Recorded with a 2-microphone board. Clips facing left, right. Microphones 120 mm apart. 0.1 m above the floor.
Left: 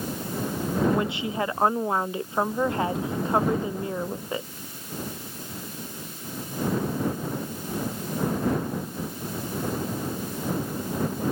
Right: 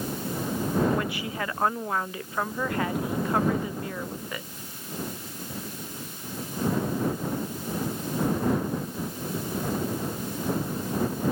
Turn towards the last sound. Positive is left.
turn(degrees=25)  # may be behind; listen again after turning